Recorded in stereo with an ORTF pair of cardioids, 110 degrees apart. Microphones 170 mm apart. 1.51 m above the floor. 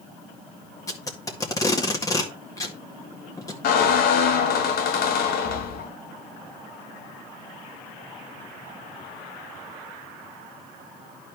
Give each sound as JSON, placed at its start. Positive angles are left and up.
{"t": 0.9, "sound": "tape being pulled", "azimuth_deg": 20, "distance_m": 1.8}
{"t": 3.6, "sound": "a squeak", "azimuth_deg": 65, "distance_m": 1.4}